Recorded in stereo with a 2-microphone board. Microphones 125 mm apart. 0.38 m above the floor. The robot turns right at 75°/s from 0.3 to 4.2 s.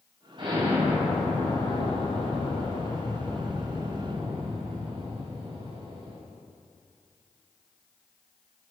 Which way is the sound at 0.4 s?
55° right.